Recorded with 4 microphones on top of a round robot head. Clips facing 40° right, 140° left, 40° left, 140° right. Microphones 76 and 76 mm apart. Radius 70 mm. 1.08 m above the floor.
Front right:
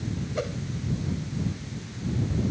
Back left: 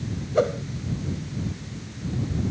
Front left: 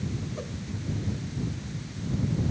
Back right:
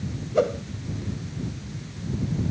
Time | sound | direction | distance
0.3 | a whoosh | 165° right | ?